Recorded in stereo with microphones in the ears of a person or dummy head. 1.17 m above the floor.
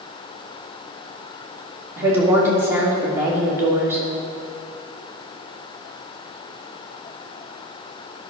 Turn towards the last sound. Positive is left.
turn(degrees=-15)  # may be behind; listen again after turning